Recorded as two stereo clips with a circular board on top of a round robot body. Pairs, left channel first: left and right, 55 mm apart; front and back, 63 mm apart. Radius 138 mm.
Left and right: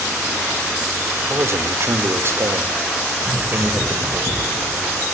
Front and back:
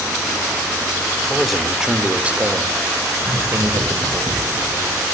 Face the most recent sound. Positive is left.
turn(degrees=135)